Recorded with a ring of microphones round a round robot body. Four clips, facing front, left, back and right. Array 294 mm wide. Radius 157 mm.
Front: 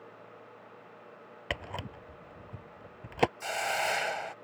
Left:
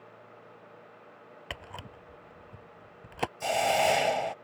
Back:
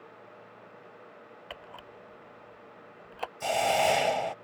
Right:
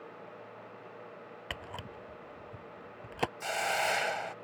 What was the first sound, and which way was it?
A camera shutter, 5° right.